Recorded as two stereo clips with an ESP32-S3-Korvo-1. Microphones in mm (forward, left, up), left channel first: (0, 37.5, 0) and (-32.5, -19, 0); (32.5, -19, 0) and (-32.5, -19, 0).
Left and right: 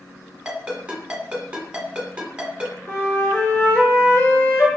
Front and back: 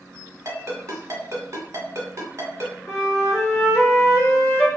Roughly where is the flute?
Ahead left.